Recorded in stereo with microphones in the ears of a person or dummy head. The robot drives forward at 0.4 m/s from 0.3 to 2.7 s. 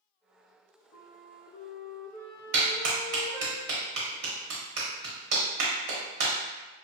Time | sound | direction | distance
0.9 | a flute | 50° left (ahead or behind) | 0.8 m
2.5 | a clap | 65° right (ahead or behind) | 1.2 m